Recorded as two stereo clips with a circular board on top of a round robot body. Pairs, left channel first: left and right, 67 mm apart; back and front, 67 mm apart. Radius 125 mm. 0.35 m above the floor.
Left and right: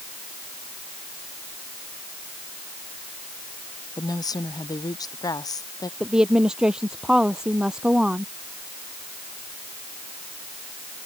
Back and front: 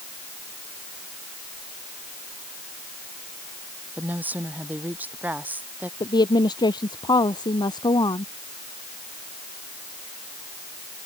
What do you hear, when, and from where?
4.0 s a woman speaking: 65° left
6.0 s a woman speaking: 170° right